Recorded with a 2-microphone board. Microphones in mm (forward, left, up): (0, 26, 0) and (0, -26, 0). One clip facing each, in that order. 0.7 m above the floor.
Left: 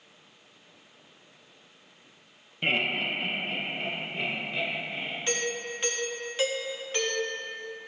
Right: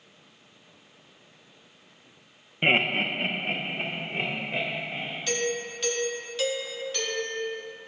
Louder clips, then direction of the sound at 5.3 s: Right 3 dB; 30° left (ahead or behind).